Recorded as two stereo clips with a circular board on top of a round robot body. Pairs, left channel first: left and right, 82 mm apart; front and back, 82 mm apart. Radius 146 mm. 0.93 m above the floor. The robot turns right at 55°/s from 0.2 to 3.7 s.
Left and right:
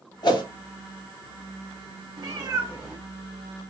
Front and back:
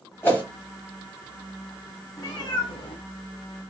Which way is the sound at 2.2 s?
55° right.